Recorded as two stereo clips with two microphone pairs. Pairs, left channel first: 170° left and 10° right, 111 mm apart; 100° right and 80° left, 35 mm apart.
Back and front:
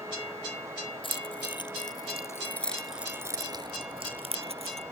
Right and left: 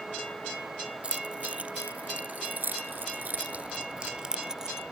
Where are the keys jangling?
135° left; by 4.8 s straight ahead.